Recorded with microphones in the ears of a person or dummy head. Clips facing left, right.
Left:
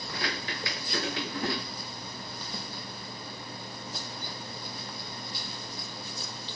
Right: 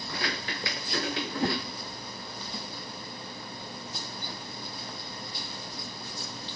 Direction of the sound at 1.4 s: 15° right (ahead or behind).